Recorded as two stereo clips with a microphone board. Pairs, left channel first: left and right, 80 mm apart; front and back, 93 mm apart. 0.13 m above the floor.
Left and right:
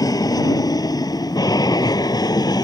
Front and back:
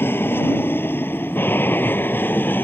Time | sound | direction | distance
0.0 | an aircraft | 60° left | ?